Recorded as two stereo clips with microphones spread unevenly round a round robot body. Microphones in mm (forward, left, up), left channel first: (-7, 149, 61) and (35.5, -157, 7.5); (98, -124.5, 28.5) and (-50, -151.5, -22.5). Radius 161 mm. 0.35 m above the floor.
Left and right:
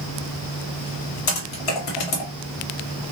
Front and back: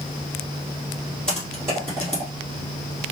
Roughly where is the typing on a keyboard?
Left.